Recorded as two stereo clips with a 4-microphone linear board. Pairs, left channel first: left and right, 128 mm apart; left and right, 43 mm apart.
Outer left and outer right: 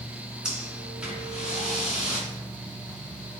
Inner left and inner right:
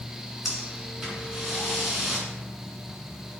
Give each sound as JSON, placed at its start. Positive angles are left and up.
{"t": 0.5, "sound": "breathing", "side_deg": -5, "distance_m": 2.5}